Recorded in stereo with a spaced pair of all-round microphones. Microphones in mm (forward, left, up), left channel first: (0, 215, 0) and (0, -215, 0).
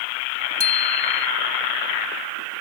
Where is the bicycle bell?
85° left.